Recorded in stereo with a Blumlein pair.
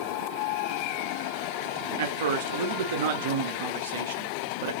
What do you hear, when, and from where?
2.0 s a man speaking: 55° right, 0.5 m